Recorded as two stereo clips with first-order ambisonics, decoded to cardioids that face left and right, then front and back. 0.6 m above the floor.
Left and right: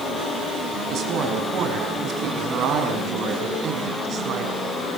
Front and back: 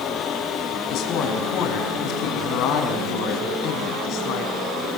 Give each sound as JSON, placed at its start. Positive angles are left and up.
{"t": 0.9, "sound": "a woman speaking", "azimuth_deg": -40, "distance_m": 5.5}